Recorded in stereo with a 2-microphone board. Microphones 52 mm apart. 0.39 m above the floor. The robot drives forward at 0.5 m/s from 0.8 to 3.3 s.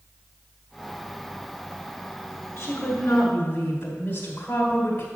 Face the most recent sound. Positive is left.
turn(degrees=50)  # may be behind; listen again after turning